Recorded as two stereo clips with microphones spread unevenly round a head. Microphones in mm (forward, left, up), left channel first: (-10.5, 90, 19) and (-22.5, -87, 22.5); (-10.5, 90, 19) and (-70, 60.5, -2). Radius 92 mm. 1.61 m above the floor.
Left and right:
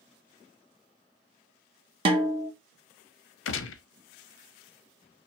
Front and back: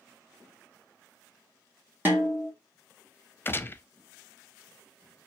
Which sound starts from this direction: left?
A gunshot, at 3.5 s.